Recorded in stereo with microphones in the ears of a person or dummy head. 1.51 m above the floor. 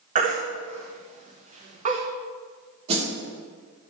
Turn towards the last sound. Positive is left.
turn(degrees=-35)  # may be behind; listen again after turning